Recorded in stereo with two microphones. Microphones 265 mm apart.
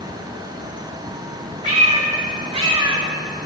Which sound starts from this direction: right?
A cat meowing, at 1.6 s.